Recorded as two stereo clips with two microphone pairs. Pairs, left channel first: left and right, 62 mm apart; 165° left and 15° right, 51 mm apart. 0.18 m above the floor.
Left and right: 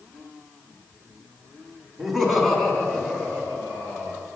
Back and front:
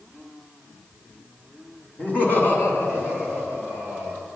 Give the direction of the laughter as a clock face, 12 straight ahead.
6 o'clock.